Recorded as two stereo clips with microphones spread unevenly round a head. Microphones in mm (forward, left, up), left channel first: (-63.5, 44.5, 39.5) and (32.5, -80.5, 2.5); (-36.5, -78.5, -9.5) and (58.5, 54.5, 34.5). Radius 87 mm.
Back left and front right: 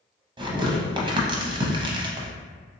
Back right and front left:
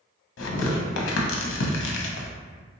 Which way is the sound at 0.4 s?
120° right.